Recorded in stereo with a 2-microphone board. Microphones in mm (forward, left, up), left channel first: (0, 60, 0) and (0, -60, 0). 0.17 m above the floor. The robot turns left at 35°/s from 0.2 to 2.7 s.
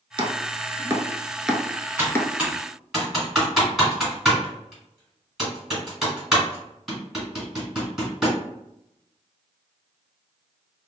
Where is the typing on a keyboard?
20° right (ahead or behind), 1.9 m; by 8.4 s 5° right (ahead or behind), 1.9 m.